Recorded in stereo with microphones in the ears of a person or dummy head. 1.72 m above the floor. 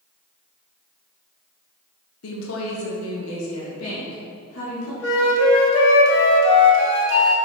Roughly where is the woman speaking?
Left.